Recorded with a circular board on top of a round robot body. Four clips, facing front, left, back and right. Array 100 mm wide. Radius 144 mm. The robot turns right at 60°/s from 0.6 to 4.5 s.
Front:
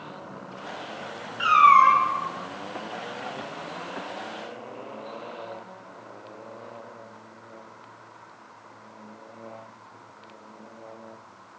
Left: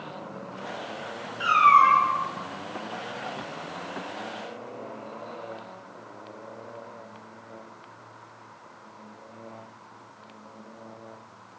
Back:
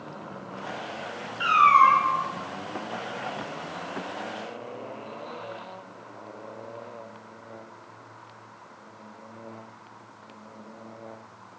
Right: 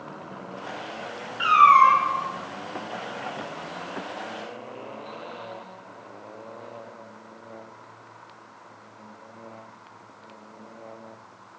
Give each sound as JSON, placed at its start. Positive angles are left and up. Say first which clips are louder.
{"t": 1.4, "sound": "a cat meowing", "louder": "right 3 dB, front 2 dB", "azimuth_deg": -50, "distance_m": 1.2}